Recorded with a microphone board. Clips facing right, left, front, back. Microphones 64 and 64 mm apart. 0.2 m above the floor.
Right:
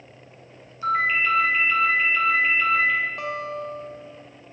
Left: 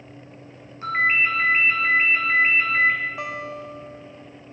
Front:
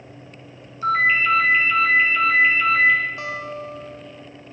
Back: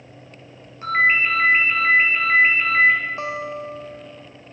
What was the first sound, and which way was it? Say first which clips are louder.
A ringtone: left 1 dB, even; 130° left.